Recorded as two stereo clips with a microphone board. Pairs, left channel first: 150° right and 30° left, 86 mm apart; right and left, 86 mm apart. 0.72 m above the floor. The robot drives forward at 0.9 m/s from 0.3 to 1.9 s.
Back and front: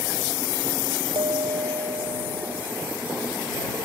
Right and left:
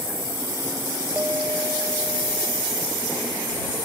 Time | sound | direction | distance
1.1 | a bell | 20° left | ?